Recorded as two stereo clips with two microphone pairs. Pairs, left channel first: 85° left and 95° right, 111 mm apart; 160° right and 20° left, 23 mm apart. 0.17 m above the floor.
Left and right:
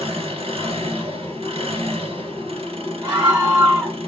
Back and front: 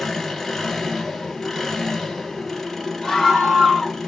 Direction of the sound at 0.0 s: 80° right.